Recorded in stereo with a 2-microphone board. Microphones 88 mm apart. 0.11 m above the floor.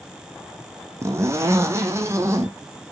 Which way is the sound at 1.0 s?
30° right (ahead or behind).